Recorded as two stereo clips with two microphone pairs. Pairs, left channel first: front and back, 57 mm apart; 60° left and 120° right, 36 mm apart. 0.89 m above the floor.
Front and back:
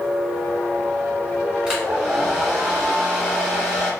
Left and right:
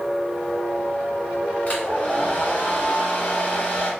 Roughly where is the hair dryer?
Left.